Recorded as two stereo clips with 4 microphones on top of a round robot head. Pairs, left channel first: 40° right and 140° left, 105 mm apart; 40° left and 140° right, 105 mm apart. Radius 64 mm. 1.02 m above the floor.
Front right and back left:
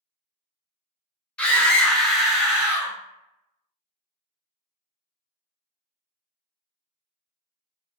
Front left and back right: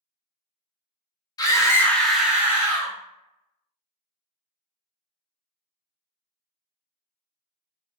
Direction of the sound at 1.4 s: 30° left.